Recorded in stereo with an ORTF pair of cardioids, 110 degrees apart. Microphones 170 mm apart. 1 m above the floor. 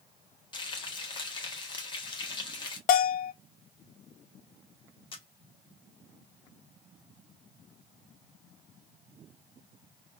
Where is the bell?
65° left, 0.7 m.